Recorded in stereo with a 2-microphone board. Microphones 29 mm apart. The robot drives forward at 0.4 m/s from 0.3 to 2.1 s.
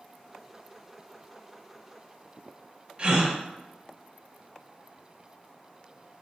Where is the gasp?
30° right (ahead or behind), 0.8 m.